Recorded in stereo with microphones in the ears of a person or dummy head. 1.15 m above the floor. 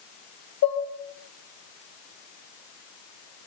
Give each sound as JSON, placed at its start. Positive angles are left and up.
{"t": 0.6, "sound": "dishes clattering", "side_deg": 75, "distance_m": 3.5}